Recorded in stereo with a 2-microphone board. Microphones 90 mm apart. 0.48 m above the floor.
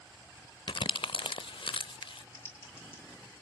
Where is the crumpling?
70° left (ahead or behind), 0.5 m.